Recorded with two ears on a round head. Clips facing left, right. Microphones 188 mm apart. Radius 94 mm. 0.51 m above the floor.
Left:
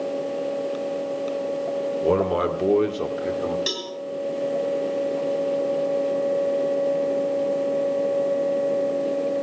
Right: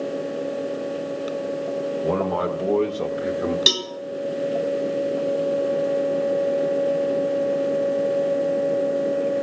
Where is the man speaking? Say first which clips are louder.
Left 4 dB; 50° left (ahead or behind), 2.0 m; by 3.6 s 25° right (ahead or behind), 1.5 m.